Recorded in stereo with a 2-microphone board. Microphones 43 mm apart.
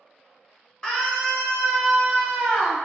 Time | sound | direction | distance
0.8 | a scream | 20° left (ahead or behind) | 1.2 m